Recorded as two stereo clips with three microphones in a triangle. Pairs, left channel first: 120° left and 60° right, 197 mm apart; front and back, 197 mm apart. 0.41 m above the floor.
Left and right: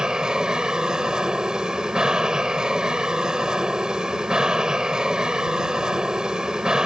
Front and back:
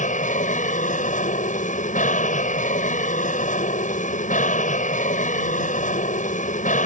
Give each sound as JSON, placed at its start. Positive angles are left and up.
{"t": 0.0, "sound": "an aircraft", "azimuth_deg": 25}